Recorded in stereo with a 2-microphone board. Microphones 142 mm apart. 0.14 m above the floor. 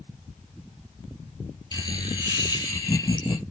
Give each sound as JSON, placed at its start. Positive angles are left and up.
{"t": 1.7, "sound": "laughter", "side_deg": 30, "distance_m": 4.5}